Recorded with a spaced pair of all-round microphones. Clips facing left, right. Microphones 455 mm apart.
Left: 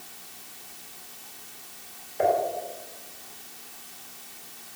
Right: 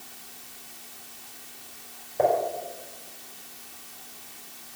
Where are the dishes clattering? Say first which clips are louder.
Right 1 dB; 60° right (ahead or behind), 3 m.